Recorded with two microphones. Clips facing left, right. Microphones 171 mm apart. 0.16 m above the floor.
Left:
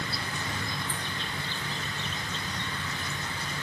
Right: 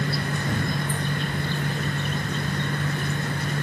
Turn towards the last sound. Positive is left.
turn(degrees=-60)  # may be behind; listen again after turning